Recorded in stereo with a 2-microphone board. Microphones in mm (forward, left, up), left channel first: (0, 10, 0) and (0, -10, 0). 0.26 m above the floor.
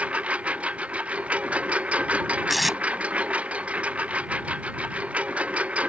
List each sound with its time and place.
0.0 s a lawn mower: 75° right (ahead or behind)
2.5 s tape being pulled: 5° right (ahead or behind)